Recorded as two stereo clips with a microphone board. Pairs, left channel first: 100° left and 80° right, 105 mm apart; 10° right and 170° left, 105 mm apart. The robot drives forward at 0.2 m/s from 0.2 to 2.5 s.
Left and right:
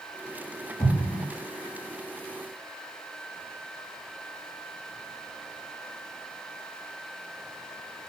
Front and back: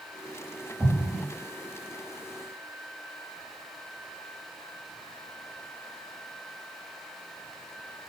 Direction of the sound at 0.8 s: 90° left.